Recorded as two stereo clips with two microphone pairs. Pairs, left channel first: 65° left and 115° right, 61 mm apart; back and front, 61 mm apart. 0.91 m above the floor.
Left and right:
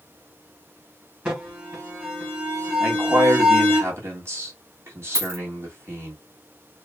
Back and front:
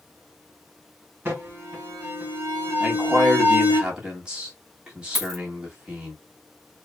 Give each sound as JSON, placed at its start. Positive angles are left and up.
{"t": 1.2, "sound": "an alarm", "azimuth_deg": -50, "distance_m": 2.0}
{"t": 2.8, "sound": "a man speaking", "azimuth_deg": -75, "distance_m": 1.7}
{"t": 5.2, "sound": "a dropped coin", "azimuth_deg": -95, "distance_m": 1.2}